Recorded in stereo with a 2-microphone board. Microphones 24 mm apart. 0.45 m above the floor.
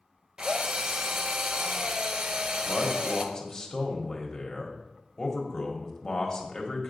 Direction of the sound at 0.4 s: 40° right (ahead or behind).